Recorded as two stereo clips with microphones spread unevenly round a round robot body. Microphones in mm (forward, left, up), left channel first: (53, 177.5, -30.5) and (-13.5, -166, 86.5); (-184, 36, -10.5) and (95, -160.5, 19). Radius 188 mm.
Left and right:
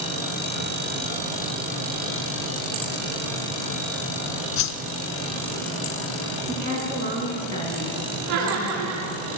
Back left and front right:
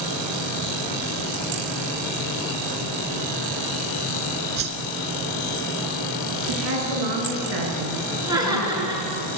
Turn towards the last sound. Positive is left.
turn(degrees=-115)